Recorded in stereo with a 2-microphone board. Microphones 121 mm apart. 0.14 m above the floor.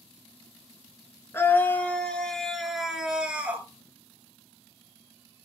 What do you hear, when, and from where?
1.3 s a scream: 20° left (ahead or behind), 2.0 m; by 3.7 s 15° right (ahead or behind), 2 m